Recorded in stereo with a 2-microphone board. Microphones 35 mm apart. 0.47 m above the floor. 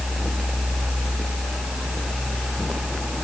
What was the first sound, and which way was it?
Only background noise.